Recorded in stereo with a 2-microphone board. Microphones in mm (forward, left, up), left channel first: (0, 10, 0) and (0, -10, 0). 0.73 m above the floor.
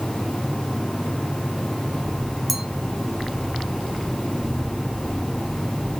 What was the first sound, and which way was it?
A clink, centre (ahead or behind).